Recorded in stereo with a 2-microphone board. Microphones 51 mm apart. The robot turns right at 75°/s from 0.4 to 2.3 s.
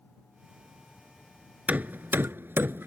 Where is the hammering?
35° right (ahead or behind); by 2.9 s 50° right (ahead or behind).